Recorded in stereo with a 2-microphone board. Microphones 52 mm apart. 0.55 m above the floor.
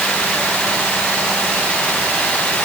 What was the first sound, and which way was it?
Only background noise.